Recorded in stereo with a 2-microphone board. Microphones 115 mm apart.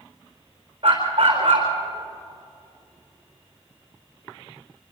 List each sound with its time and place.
0.8 s a dog barking: 45° right (ahead or behind), 4.5 m